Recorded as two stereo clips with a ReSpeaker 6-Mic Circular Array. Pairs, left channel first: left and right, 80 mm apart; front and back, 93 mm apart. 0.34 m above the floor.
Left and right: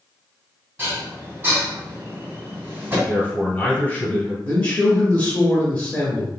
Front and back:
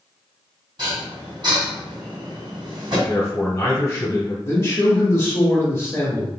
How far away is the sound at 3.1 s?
About 1.5 m.